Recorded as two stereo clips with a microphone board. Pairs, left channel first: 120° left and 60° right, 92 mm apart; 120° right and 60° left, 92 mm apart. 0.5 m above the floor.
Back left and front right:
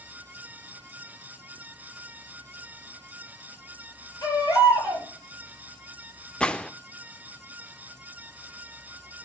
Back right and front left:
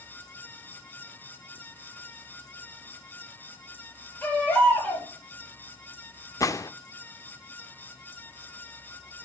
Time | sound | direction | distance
4.2 | a baby crying | 170° left | 9.5 m
6.4 | a gunshot | 160° right | 0.6 m